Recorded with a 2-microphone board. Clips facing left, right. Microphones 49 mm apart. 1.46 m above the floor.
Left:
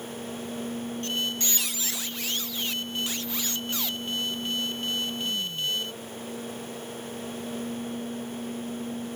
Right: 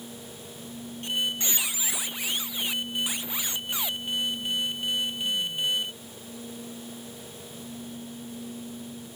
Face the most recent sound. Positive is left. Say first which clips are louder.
# right 3 dB
turn(degrees=-15)  # may be behind; listen again after turning